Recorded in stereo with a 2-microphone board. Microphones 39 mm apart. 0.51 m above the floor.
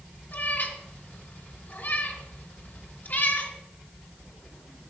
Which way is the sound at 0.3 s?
55° left (ahead or behind).